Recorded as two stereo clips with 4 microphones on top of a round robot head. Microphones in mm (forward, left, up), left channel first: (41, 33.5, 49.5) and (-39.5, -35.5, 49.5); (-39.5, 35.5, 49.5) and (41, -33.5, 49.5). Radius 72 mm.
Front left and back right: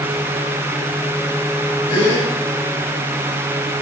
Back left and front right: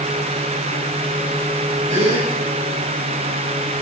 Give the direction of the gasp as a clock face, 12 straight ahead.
12 o'clock.